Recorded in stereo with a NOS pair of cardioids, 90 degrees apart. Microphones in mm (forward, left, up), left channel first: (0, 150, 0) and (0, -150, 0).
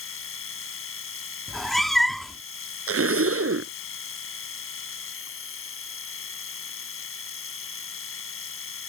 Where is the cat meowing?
Straight ahead.